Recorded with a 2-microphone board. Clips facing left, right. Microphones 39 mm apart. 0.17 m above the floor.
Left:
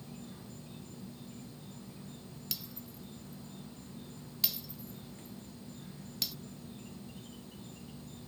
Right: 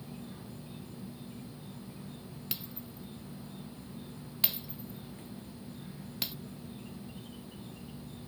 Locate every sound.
0.0 s an insect: 10° right (ahead or behind)
2.5 s breaking glass: 30° right (ahead or behind)